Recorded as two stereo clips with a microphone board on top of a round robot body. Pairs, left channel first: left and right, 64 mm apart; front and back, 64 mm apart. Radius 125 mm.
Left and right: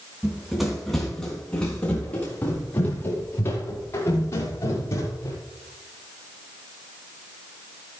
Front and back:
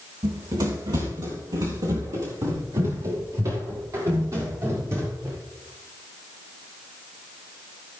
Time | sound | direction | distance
0.2 | running footsteps | 170° right | 3.5 m